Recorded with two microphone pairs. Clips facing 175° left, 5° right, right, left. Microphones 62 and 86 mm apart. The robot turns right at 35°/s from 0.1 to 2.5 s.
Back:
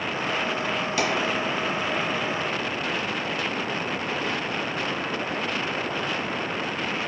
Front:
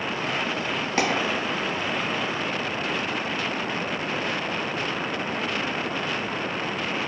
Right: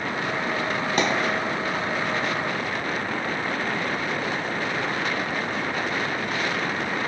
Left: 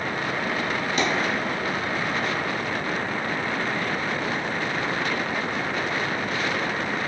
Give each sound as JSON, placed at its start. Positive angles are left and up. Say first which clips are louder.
{"t": 1.0, "sound": "a dropped coin", "louder": "front 2 dB, right 1 dB", "azimuth_deg": -50, "distance_m": 0.7}